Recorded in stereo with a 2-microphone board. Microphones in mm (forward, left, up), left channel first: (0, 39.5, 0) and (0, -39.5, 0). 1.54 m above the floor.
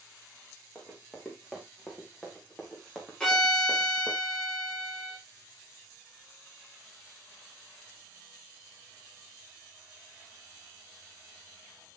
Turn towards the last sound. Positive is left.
turn(degrees=10)  # may be behind; listen again after turning